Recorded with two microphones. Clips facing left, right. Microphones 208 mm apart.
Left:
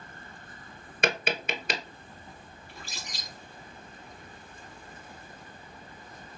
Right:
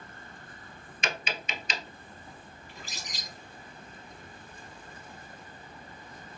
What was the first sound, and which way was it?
Tapping, 60° left (ahead or behind).